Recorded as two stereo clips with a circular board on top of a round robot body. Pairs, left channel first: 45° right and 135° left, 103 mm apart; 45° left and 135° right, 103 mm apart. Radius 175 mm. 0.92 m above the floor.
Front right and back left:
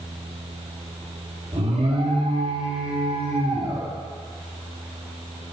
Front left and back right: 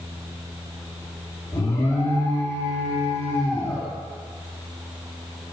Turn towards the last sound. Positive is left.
turn(degrees=110)